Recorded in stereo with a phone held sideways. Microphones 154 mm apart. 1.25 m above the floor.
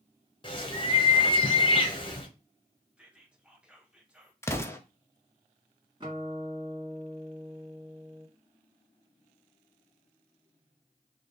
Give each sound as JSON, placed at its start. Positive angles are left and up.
{"t": 0.4, "sound": "a bird", "side_deg": 35, "distance_m": 0.9}
{"t": 3.0, "sound": "whispering", "side_deg": -5, "distance_m": 1.1}
{"t": 4.4, "sound": "an explosion", "side_deg": 20, "distance_m": 0.6}
{"t": 6.0, "sound": "a guitar", "side_deg": -30, "distance_m": 1.7}